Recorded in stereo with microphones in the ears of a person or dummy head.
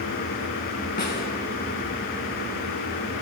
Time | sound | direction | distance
1.0 | a snare drum | 40° left (ahead or behind) | 2.5 m